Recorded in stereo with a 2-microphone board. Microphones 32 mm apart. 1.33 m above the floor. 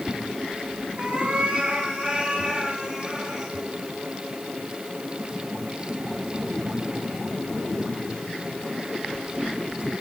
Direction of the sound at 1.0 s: 30° right (ahead or behind).